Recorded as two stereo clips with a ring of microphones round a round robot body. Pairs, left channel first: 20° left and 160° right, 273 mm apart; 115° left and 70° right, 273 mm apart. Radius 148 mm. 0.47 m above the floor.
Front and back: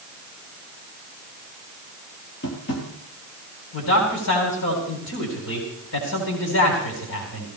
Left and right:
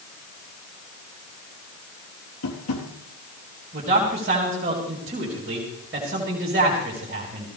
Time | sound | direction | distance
2.4 | tapping | 75° left | 3.5 m
3.7 | a man speaking | 10° right | 4 m